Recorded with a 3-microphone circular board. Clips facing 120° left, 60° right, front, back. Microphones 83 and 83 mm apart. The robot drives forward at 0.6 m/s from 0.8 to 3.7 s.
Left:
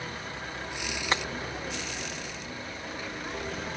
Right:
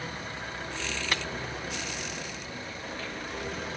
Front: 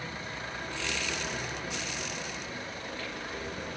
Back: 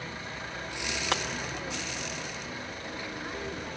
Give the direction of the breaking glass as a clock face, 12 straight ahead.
6 o'clock.